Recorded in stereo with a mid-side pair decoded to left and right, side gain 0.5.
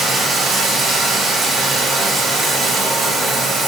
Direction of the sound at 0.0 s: 55° right.